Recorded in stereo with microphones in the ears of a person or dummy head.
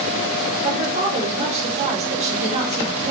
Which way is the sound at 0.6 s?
30° right (ahead or behind).